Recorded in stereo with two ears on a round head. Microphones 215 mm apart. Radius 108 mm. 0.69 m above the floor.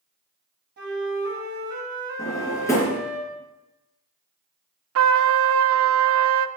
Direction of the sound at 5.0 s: 60° right (ahead or behind).